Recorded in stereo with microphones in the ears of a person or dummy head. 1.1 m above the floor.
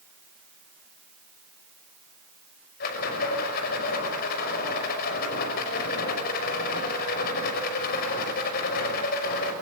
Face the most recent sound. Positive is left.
turn(degrees=50)  # may be behind; listen again after turning